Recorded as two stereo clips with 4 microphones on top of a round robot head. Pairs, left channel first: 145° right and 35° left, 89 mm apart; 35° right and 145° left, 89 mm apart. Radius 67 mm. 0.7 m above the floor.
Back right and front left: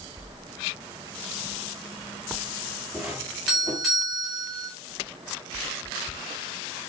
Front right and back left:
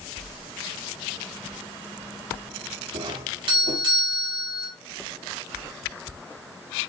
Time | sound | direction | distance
2.9 | a doorbell | 120° left | 6 m